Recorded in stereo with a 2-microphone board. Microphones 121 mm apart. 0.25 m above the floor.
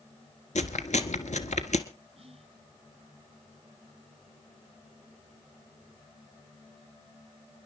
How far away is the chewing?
About 1.3 m.